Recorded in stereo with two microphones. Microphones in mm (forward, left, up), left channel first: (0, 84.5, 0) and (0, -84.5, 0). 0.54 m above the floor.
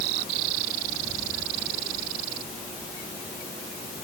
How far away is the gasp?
I don't hear a gasp.